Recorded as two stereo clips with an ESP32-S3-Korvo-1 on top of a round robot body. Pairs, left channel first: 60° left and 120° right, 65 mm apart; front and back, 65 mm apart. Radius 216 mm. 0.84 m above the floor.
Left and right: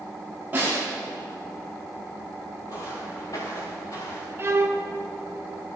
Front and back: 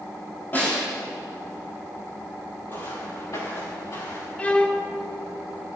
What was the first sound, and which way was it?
A snare drum, 60° right.